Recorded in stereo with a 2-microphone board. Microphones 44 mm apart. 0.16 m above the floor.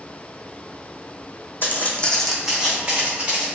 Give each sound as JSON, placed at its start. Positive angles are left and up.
{"t": 1.6, "sound": "footsteps", "side_deg": 50, "distance_m": 0.6}